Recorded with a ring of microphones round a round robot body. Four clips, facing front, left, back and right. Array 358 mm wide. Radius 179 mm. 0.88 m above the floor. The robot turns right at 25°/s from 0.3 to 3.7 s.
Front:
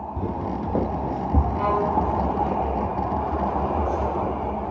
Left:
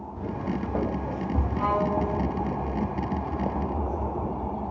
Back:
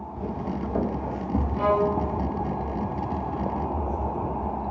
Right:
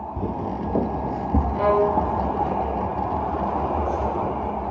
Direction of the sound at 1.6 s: 85° right.